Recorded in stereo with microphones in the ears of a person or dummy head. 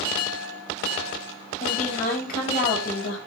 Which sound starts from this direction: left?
A woman speaking, at 1.6 s.